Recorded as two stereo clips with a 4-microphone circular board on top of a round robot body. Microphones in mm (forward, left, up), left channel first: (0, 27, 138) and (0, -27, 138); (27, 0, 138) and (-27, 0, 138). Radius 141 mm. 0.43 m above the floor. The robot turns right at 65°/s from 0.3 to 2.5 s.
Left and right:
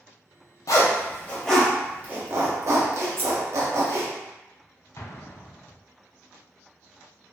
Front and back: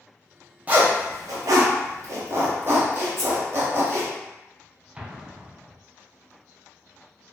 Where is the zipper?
115° left, 0.6 m; by 4.1 s 125° right, 0.6 m.